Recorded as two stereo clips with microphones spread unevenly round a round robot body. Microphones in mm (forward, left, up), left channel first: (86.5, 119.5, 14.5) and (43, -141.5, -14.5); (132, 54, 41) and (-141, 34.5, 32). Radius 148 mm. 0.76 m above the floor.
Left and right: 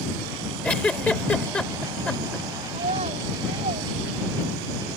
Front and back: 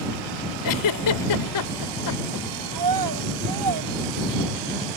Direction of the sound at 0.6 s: 5° right.